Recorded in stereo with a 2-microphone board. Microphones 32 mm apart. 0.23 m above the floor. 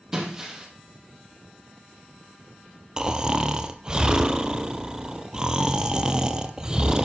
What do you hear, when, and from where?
0.1 s breaking glass: 15° right (ahead or behind), 4 m
3.0 s snoring: 20° right (ahead or behind), 1.2 m